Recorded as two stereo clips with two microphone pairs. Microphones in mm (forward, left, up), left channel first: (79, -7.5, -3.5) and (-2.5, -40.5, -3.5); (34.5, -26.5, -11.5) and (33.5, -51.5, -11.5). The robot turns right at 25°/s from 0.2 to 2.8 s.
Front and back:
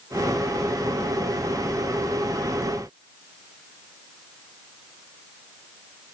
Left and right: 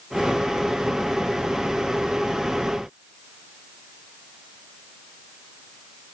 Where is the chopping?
No chopping in this recording.